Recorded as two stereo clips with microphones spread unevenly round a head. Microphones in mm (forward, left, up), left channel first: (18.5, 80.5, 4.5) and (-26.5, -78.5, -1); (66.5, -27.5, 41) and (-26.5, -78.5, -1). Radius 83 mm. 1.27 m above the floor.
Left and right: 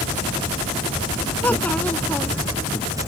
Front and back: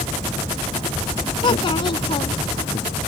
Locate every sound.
1.4 s a child speaking: 5° right